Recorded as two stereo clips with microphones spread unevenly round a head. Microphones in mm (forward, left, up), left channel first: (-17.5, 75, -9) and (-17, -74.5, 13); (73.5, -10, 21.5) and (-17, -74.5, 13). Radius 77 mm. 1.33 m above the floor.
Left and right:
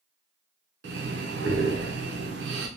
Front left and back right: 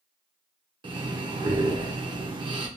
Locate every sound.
0.8 s breathing: 100° right, 0.6 m